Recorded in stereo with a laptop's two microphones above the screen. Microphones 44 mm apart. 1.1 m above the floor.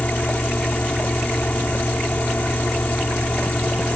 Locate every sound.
0.0 s a fan: 40° left (ahead or behind)